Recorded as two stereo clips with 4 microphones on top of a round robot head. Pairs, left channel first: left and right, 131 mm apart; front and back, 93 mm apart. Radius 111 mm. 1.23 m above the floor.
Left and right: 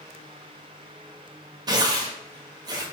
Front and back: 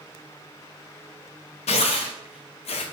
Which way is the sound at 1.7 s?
25° right.